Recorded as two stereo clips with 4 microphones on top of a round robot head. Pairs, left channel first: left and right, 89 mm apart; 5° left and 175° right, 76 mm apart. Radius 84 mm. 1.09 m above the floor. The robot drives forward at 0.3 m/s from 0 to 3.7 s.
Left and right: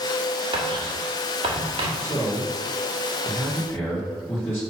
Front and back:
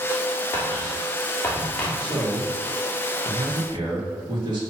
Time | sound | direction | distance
0.5 | writing | 70° right | 1.9 m
2.0 | a man speaking | 155° left | 2 m